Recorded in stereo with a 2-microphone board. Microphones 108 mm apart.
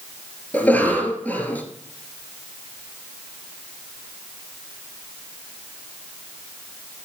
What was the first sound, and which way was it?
A cough, 15° left (ahead or behind).